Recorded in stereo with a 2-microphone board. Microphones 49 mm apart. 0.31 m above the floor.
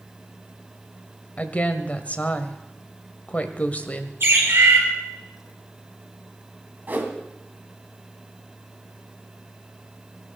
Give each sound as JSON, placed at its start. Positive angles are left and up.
{"t": 1.4, "sound": "a woman speaking", "side_deg": 30, "distance_m": 1.5}
{"t": 4.2, "sound": "a bird", "side_deg": -55, "distance_m": 5.0}
{"t": 6.9, "sound": "a whoosh", "side_deg": -40, "distance_m": 2.0}